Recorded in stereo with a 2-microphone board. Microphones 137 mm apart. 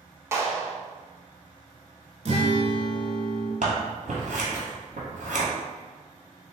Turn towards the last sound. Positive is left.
turn(degrees=-70)  # may be behind; listen again after turning